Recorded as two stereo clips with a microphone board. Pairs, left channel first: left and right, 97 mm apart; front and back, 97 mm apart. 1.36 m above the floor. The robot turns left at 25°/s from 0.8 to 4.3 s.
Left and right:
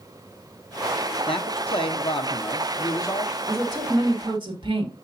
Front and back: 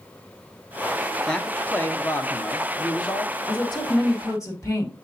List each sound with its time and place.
1.3 s a man speaking: 85° left, 1.0 m; by 3.4 s 30° left, 1.0 m
3.5 s a woman speaking: 35° right, 2 m; by 4.9 s 55° right, 2 m